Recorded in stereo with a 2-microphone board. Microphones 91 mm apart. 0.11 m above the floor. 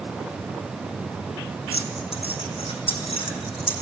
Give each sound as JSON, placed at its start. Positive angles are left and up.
{"t": 1.7, "sound": "keys jangling", "side_deg": 75, "distance_m": 4.5}